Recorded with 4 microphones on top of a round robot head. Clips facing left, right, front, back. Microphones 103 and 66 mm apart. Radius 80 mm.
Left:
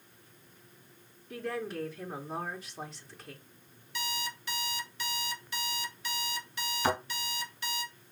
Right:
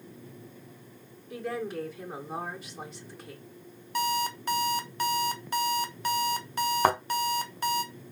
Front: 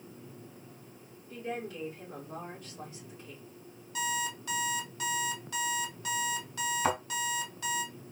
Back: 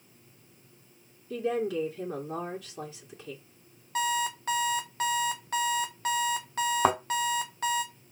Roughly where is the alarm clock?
Behind right.